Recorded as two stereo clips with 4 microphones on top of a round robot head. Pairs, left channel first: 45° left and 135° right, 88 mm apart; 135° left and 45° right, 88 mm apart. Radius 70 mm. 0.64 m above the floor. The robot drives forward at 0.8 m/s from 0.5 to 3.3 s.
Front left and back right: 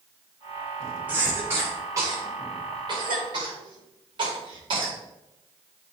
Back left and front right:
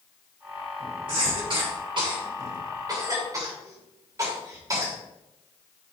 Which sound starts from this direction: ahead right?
A cough, at 1.1 s.